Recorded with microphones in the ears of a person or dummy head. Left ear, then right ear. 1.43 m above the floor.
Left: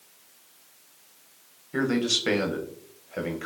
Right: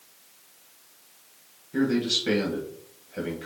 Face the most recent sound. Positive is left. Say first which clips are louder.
# even
turn(degrees=40)  # may be behind; listen again after turning